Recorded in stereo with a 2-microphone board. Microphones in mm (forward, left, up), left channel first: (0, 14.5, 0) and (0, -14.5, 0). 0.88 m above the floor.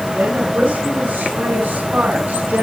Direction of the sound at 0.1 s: 85° right.